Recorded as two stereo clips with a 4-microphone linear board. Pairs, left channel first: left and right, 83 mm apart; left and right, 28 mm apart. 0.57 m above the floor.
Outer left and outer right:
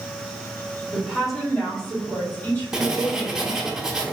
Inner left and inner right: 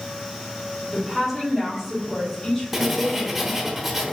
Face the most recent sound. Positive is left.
turn(degrees=-5)  # may be behind; listen again after turning